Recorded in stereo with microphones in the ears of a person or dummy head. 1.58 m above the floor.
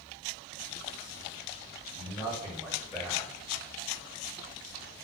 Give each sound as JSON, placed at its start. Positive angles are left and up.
{"t": 1.9, "sound": "a man speaking", "side_deg": 15, "distance_m": 1.3}